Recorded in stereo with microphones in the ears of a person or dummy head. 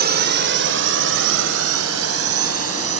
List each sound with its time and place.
0.0 s a drone: 45° right (ahead or behind); by 3.0 s 75° right (ahead or behind)